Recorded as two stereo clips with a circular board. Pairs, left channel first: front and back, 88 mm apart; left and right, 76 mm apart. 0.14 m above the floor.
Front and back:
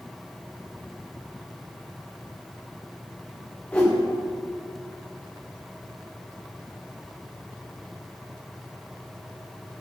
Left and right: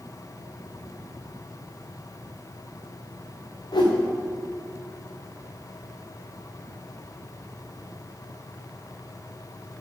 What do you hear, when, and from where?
3.7 s a whoosh: 75° left, 3.5 m